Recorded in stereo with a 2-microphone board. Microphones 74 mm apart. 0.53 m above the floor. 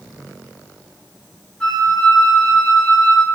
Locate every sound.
1.6 s a flute: 10° left (ahead or behind), 2 m